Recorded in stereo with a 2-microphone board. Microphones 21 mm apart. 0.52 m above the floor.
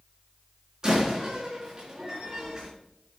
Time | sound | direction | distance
0.8 | a door slam | 30° right (ahead or behind) | 4 m